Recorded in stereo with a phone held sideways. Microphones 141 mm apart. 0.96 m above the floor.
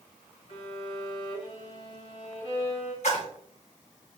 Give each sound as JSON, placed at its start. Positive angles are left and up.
{"t": 0.5, "sound": "a violin", "side_deg": 45, "distance_m": 3.5}
{"t": 3.0, "sound": "a splash", "side_deg": 55, "distance_m": 2.0}